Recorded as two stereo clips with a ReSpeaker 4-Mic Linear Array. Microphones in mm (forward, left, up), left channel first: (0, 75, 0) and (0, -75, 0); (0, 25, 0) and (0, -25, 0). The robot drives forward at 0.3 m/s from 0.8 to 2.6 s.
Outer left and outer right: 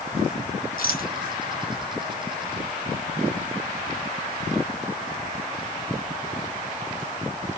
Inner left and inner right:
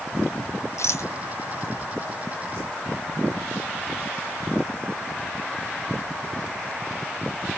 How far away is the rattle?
About 0.6 m.